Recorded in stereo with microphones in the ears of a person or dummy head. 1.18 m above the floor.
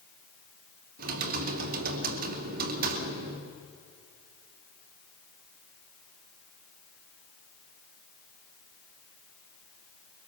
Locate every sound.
1.0 s typing on a keyboard: 50° right (ahead or behind), 2.5 m